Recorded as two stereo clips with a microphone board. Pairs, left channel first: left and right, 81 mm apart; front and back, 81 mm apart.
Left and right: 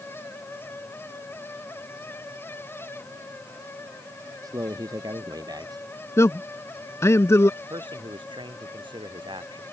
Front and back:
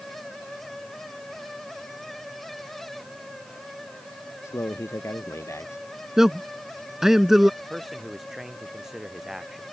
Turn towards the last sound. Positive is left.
turn(degrees=-95)